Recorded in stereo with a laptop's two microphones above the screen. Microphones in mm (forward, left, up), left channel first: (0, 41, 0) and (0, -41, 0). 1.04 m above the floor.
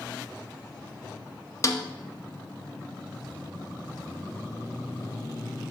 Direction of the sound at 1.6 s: 35° left (ahead or behind).